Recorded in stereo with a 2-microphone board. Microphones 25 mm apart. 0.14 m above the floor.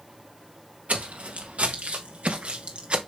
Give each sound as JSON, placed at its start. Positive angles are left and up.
{"t": 0.9, "sound": "footsteps", "side_deg": -80, "distance_m": 1.9}